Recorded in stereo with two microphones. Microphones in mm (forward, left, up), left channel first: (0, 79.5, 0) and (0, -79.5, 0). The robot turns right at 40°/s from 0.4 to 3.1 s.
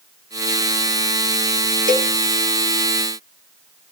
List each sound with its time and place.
1.9 s a cowbell: 50° right (ahead or behind), 0.9 m; by 2.1 s 60° right (ahead or behind), 0.9 m